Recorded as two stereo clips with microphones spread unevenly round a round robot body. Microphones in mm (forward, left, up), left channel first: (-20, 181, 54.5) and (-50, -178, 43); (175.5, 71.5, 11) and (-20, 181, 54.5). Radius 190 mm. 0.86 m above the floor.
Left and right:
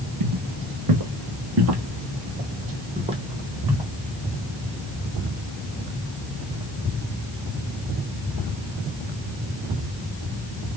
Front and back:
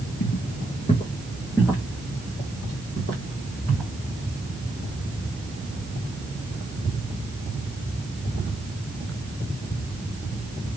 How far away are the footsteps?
About 1.4 m.